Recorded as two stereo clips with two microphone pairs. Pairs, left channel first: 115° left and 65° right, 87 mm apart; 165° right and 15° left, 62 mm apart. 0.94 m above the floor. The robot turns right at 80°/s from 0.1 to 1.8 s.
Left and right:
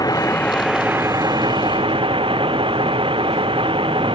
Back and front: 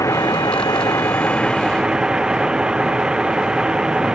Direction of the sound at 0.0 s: 160° left.